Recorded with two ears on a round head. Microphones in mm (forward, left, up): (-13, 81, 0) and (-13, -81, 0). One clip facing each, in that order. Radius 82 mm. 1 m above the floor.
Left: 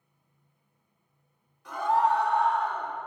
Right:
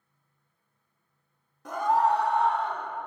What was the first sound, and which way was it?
A scream, 40° right (ahead or behind).